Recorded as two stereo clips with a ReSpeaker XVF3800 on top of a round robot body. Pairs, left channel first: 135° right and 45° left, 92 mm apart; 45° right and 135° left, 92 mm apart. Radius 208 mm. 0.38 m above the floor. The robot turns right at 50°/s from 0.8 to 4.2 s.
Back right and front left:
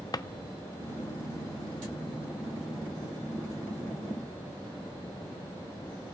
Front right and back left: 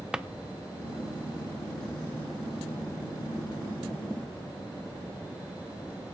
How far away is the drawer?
About 0.6 m.